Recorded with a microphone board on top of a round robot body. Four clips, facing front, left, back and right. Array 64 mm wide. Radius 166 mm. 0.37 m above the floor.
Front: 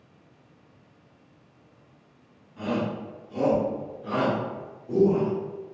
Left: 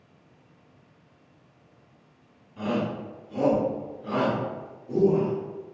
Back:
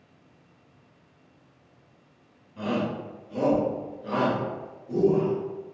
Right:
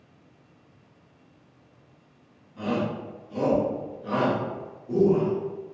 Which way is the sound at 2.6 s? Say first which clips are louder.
Even, even; 135° left.